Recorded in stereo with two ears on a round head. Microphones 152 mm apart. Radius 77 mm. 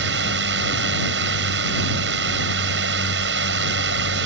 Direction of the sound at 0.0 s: 70° right (ahead or behind).